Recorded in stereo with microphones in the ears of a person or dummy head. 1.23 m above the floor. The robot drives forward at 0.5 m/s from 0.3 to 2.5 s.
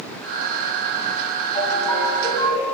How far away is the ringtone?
About 4 m.